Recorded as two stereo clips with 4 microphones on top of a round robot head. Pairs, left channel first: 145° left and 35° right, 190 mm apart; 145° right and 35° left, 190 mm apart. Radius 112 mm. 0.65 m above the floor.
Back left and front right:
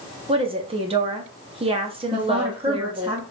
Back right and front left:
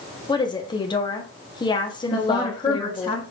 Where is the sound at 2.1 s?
90° right, 1.1 m.